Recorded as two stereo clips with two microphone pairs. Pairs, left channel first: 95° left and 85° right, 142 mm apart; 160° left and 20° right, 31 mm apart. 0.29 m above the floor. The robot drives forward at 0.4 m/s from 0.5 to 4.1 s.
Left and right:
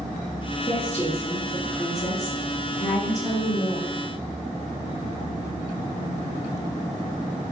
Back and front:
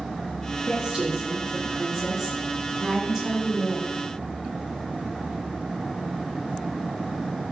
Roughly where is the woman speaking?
Ahead left.